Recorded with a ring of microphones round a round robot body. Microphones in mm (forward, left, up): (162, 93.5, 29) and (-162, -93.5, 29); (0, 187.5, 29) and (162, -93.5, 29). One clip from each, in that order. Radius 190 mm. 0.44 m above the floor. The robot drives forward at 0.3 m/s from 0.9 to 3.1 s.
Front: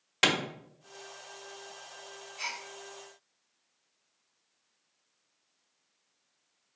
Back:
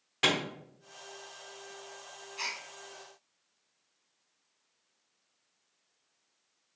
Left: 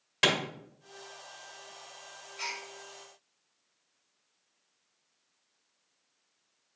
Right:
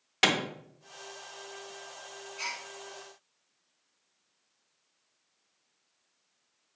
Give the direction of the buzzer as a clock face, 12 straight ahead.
I don't hear a buzzer.